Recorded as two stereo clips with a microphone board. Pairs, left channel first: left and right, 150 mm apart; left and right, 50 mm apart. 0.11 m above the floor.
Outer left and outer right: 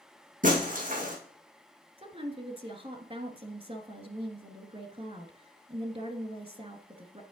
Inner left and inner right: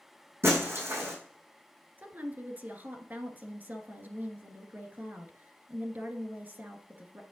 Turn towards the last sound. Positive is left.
turn(degrees=-40)  # may be behind; listen again after turning